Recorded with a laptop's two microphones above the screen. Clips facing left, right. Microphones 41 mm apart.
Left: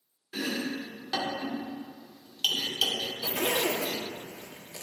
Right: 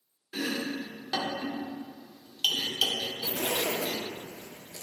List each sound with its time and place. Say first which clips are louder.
0.3 s chopping: even; centre (ahead or behind), 1.1 m
3.2 s a zipper: left 3 dB; 55° left (ahead or behind), 0.9 m